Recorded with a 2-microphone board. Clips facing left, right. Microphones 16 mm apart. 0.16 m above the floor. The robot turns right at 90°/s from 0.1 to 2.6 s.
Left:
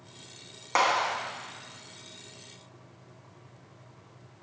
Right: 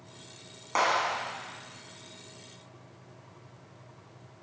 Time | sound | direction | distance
0.8 | a clap | 15° left (ahead or behind) | 1.0 m